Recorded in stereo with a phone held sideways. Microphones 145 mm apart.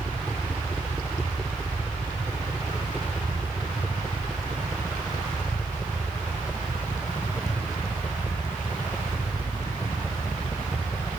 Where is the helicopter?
5° left (ahead or behind); by 11.2 s 15° left (ahead or behind).